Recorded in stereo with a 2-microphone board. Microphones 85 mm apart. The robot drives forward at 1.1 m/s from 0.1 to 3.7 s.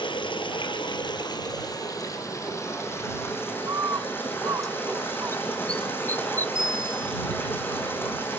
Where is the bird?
45° right (ahead or behind), 0.7 m; by 6.5 s 40° right (ahead or behind), 0.7 m.